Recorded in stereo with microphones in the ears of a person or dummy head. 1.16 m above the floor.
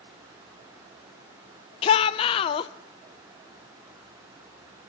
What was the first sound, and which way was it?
A shout, 30° left (ahead or behind).